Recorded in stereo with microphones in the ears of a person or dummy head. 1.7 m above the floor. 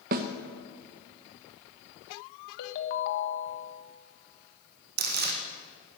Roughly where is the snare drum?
Right.